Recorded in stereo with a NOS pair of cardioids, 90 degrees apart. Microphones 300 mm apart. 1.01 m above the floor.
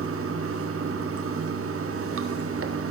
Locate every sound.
0.0 s running water: 45° right, 1.4 m